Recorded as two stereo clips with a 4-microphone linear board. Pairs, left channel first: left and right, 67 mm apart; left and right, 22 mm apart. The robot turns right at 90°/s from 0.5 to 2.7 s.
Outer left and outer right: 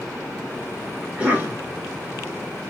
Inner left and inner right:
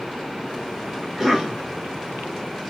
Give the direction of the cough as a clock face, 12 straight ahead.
6 o'clock.